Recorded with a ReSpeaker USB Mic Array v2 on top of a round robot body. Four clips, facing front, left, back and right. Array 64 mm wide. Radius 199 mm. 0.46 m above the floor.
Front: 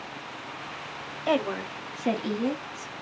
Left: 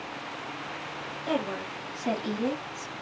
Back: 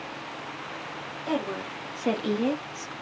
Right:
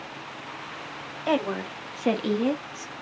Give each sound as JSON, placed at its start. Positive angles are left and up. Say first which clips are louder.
{"t": 1.3, "sound": "a woman speaking", "louder": "right 5 dB, front 4 dB", "azimuth_deg": -50, "distance_m": 1.3}